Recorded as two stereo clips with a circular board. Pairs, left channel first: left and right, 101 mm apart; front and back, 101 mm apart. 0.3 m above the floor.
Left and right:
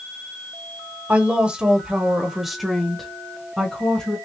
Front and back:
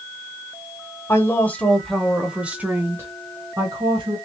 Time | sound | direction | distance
1.1 | a woman speaking | 25° right | 1.1 m